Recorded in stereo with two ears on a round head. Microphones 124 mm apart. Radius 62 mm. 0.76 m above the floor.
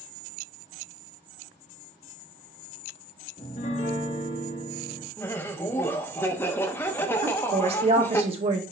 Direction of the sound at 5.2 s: 15° left (ahead or behind).